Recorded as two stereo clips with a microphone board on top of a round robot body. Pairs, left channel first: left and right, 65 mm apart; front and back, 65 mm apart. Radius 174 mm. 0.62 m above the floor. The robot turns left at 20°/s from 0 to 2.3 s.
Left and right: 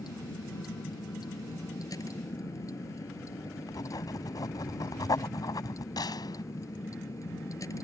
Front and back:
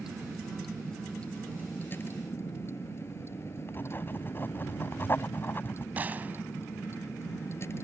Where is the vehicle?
100° left; by 7.8 s 50° left.